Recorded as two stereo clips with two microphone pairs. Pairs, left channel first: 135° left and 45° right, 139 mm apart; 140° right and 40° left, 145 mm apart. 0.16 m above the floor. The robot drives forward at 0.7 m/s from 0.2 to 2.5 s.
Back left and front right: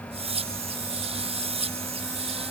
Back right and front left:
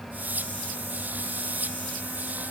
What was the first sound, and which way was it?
Only background noise.